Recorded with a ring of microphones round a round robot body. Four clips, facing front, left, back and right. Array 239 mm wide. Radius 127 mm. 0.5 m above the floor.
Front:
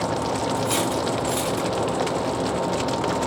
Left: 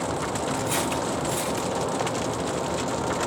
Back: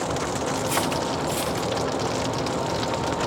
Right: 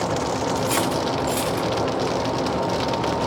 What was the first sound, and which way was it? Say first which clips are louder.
Cutlery clinking: right 4 dB, front 1 dB; 35° right.